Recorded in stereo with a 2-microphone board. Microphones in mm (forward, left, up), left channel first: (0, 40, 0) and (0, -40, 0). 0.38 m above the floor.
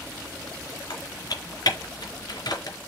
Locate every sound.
0.9 s typing on a keyboard: 60° left (ahead or behind), 4 m